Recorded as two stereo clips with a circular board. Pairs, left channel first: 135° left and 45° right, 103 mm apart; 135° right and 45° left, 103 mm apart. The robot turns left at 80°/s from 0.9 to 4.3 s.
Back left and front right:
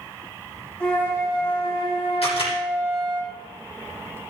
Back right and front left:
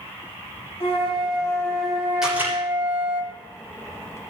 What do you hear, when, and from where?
0.8 s a flute: 145° right, 3 m; by 3.2 s 30° left, 3 m
2.2 s a camera shutter: 130° left, 7 m; by 2.5 s 100° left, 7 m